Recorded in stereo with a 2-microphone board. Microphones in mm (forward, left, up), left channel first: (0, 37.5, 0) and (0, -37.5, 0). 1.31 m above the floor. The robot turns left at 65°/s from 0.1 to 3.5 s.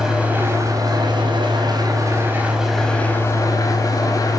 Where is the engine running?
5° right, 4.5 m; by 4.4 s 130° left, 4.5 m.